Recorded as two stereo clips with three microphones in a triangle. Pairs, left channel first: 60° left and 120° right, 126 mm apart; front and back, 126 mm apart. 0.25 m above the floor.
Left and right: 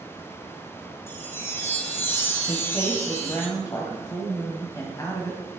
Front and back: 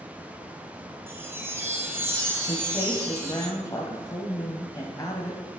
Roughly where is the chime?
Behind left.